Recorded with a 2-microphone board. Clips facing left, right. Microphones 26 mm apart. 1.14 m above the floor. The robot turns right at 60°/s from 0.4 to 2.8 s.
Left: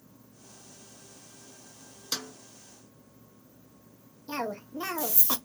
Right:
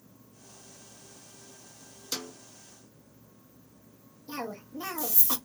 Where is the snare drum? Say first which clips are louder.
Left 2 dB; 40° left (ahead or behind), 1.7 m; by 2.3 s 50° left (ahead or behind), 1.7 m.